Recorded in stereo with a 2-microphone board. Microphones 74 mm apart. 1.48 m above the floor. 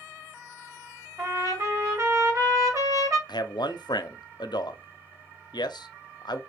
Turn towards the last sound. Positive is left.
turn(degrees=75)  # may be behind; listen again after turning